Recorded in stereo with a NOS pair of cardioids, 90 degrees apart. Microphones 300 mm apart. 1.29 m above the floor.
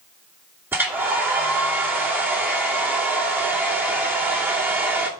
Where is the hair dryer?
5° right, 2.5 m.